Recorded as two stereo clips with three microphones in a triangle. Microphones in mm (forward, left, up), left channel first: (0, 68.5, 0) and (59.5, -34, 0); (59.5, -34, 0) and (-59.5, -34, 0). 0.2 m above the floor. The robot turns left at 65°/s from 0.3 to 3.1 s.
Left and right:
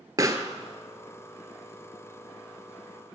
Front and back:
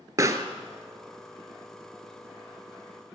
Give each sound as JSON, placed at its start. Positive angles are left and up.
{"t": 0.2, "sound": "a pop", "azimuth_deg": -120, "distance_m": 0.6}